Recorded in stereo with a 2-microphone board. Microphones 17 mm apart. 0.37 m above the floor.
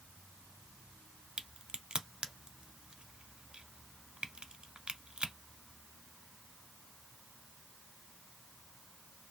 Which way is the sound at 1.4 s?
70° right (ahead or behind).